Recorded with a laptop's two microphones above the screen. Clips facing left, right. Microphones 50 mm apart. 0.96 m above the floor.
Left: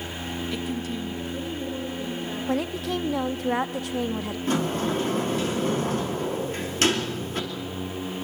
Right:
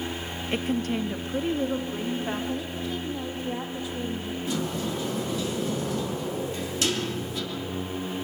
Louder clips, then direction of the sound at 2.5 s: Left 4 dB; 70° left (ahead or behind).